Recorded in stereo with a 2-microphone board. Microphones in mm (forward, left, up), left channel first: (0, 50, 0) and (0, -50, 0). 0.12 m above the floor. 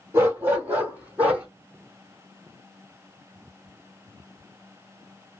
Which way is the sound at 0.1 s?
25° right (ahead or behind).